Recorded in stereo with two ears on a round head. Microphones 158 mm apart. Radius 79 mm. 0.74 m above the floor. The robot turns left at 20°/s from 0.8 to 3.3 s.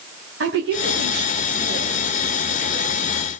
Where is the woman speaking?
80° right, 4 m; by 3.3 s 30° right (ahead or behind), 4 m.